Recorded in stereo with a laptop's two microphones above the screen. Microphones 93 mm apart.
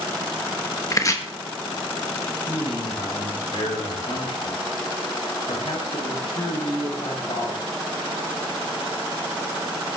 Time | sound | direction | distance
0.9 | chopping | 35° left (ahead or behind) | 1.3 m
2.5 | a man speaking | 80° left | 5.5 m